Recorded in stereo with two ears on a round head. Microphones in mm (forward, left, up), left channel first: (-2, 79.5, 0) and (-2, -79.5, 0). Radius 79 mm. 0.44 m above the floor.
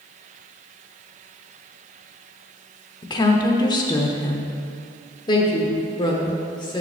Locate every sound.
3.0 s a woman speaking: 25° left (ahead or behind), 0.7 m
5.3 s a woman speaking: 25° left (ahead or behind), 0.9 m